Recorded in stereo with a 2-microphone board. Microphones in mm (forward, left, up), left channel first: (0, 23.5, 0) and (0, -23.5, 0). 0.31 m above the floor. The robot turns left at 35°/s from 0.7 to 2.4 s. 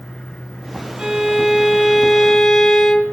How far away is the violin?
About 1.2 m.